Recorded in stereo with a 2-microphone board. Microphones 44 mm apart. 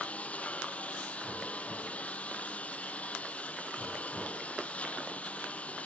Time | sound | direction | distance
0.0 | a lawn mower | 30° left (ahead or behind) | ?